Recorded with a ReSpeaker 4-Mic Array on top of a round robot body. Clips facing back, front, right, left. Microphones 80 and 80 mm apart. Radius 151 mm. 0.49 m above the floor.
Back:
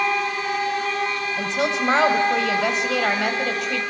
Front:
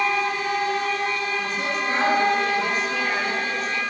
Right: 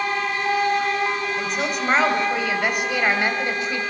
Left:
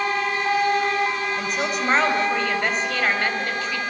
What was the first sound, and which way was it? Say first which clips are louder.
A woman speaking: back 3 dB, even; 175° left.